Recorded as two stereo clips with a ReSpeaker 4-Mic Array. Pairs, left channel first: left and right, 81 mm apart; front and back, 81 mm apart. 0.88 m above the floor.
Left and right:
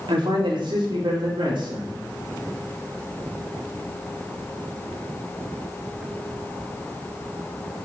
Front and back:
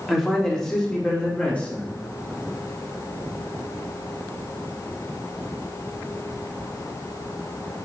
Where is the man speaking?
90° right, 1.7 m; by 1.9 s 70° right, 2.5 m.